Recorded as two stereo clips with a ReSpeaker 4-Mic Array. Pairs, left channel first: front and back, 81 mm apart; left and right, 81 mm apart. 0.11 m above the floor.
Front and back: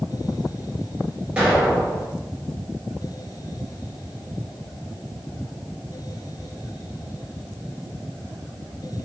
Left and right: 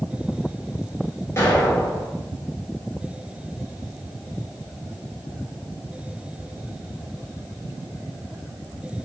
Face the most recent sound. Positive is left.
turn(degrees=110)